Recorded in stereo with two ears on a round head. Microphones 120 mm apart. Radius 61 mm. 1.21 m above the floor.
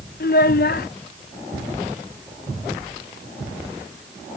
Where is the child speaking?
65° left (ahead or behind).